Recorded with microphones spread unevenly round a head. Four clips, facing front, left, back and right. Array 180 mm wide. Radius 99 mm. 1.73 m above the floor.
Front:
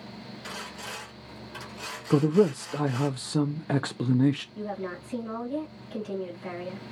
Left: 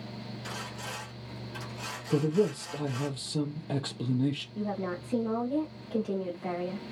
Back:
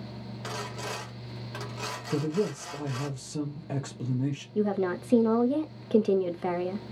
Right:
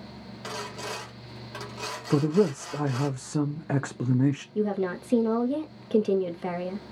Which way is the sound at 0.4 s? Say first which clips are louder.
Right 8 dB, back 5 dB; 100° right.